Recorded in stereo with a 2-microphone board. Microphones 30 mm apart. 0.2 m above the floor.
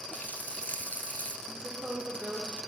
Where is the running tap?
70° left (ahead or behind), 2 m.